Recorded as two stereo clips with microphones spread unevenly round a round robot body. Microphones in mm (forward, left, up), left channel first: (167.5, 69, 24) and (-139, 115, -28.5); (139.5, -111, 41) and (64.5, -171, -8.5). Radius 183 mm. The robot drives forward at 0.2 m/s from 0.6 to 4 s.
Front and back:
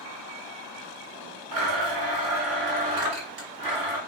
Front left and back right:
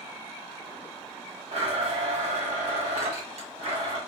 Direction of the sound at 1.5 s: 155° right.